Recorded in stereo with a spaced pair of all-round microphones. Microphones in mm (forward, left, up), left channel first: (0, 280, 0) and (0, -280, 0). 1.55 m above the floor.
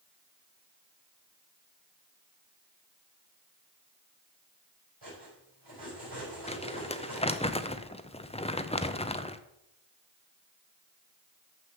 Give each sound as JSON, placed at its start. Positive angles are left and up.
{"t": 5.0, "sound": "cutlery clinking", "side_deg": -45, "distance_m": 5.0}
{"t": 6.5, "sound": "crumpling", "side_deg": 10, "distance_m": 0.5}